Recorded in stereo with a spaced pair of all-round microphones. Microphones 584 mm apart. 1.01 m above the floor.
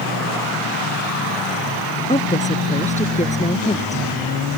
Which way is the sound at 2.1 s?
10° left (ahead or behind).